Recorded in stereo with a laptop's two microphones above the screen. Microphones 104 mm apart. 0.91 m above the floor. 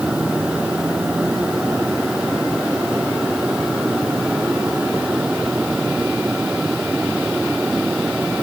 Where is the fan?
10° right (ahead or behind).